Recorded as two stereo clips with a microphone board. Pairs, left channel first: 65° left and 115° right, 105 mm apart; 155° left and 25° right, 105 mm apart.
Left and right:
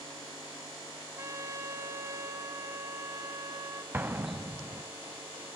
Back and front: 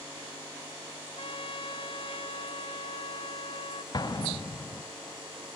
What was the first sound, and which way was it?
A trumpet, 170° right.